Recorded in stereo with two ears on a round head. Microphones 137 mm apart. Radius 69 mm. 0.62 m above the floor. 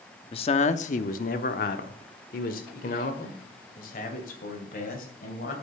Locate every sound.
0.3 s a man speaking: 35° left (ahead or behind), 0.7 m; by 5.5 s 55° left (ahead or behind), 3 m